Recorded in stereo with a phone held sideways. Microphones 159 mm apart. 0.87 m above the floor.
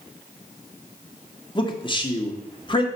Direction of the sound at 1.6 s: 30° left (ahead or behind).